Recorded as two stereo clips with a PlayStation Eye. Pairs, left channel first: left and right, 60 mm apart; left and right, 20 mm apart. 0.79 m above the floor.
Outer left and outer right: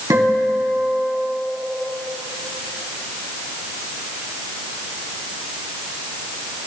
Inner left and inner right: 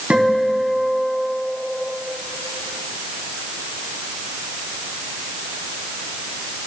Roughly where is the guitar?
Right.